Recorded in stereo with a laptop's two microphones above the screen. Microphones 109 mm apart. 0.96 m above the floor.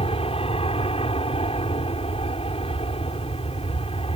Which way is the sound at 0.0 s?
55° left (ahead or behind).